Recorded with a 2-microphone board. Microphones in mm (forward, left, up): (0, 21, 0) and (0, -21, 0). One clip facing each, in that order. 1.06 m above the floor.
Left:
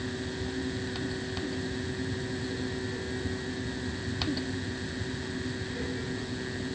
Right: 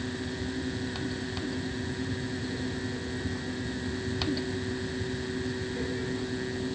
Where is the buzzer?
No buzzer in this recording.